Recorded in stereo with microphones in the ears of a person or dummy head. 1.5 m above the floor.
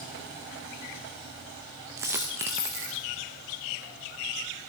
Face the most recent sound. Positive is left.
turn(degrees=-10)  # may be behind; listen again after turning